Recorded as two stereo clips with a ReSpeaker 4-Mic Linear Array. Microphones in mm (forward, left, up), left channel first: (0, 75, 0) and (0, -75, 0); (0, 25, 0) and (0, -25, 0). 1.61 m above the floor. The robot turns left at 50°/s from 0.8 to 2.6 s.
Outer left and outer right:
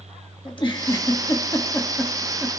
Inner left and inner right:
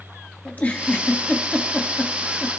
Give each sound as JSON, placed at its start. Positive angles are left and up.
{"t": 0.5, "sound": "a giggle", "side_deg": 30, "distance_m": 1.1}